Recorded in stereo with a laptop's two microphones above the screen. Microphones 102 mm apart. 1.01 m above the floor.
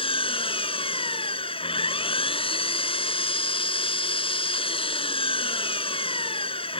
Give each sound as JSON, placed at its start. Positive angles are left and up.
{"t": 0.0, "sound": "an engine running", "side_deg": 65}